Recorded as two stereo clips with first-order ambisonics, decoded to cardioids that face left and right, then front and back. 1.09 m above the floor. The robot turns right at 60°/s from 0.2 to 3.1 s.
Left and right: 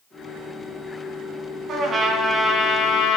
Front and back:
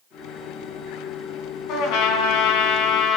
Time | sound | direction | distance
1.7 | a trumpet | 35° right | 3 m